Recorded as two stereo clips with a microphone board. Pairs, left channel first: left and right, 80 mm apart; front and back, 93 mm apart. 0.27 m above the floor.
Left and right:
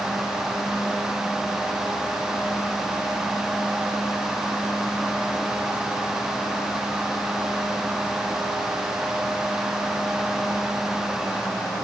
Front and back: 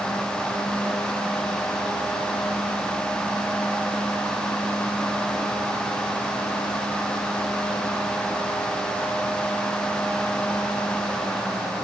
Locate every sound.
Only background noise.